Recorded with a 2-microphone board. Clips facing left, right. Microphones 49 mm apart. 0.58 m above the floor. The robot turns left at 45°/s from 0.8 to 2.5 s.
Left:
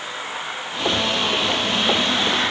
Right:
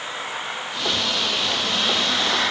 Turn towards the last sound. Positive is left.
No sound to turn to.